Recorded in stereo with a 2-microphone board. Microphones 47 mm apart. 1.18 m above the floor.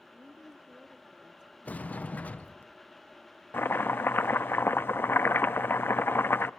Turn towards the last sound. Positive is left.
turn(degrees=50)  # may be behind; listen again after turning